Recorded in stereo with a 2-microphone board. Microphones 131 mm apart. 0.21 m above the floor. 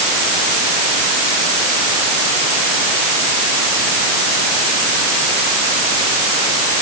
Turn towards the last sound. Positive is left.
No sound to turn to.